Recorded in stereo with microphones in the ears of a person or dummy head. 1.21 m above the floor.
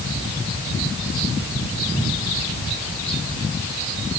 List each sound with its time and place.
Only background noise.